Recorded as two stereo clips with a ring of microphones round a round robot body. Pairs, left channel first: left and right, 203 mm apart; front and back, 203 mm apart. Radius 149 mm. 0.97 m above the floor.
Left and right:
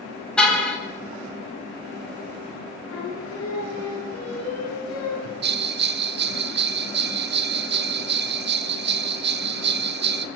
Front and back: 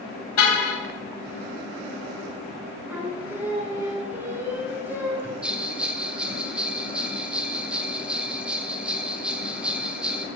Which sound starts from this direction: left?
Singing, at 2.9 s.